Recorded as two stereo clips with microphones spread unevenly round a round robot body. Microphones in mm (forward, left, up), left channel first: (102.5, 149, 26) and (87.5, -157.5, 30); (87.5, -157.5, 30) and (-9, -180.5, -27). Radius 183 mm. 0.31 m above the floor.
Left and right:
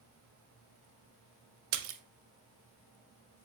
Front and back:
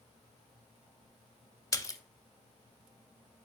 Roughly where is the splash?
Ahead right.